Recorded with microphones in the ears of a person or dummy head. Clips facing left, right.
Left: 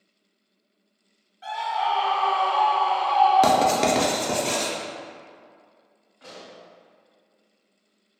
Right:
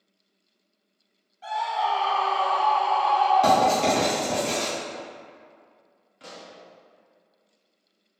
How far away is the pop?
About 0.6 m.